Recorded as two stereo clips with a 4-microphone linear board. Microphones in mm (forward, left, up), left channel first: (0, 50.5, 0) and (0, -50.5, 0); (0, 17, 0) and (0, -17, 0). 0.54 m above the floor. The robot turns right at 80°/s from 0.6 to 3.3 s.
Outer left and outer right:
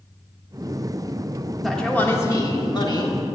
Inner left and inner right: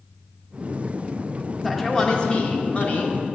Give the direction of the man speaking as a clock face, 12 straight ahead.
12 o'clock.